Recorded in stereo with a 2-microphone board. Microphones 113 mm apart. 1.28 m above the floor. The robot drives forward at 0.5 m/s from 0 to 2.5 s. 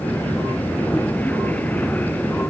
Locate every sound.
Only background noise.